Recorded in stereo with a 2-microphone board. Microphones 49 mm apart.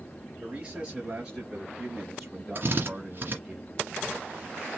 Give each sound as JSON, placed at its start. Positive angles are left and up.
{"t": 0.4, "sound": "a man speaking", "side_deg": -20, "distance_m": 3.5}
{"t": 2.5, "sound": "a drill", "side_deg": -45, "distance_m": 2.0}